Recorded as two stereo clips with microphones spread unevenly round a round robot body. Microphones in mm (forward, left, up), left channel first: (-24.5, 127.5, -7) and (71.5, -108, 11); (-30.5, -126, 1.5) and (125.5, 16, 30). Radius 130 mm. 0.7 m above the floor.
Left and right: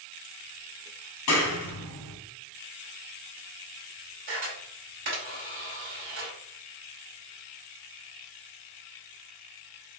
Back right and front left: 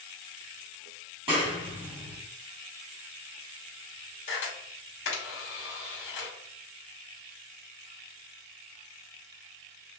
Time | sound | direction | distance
1.3 | a clap | 115° left | 1.2 m
4.3 | a camera shutter | 115° right | 2 m